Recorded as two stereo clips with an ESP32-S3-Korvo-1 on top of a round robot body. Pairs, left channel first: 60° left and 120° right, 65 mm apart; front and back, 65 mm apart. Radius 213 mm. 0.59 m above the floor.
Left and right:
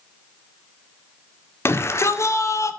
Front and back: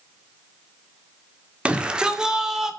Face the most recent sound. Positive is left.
turn(degrees=95)